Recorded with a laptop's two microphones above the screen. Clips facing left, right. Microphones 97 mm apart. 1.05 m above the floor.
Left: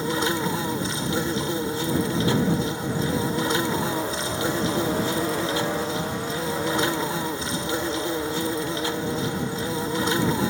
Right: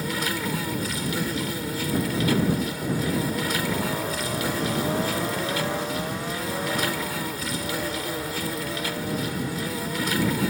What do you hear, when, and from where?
0.0 s an insect: 25° left (ahead or behind)